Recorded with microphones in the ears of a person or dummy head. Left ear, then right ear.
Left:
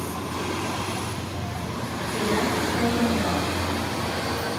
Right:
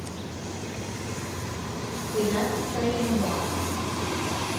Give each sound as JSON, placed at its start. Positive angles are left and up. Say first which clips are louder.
{"t": 2.1, "sound": "a woman speaking", "louder": "left 1 dB", "side_deg": 5, "distance_m": 2.5}